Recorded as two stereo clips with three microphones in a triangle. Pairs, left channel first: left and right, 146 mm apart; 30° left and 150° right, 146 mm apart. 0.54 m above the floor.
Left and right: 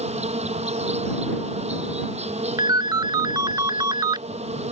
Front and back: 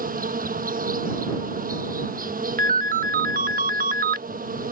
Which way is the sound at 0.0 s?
135° right.